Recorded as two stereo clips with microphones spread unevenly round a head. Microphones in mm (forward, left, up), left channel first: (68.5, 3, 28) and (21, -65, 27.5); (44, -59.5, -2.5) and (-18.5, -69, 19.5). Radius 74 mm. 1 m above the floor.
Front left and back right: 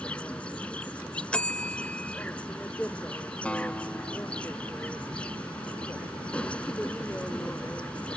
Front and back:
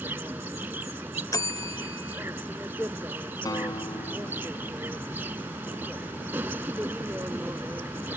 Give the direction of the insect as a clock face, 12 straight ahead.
7 o'clock.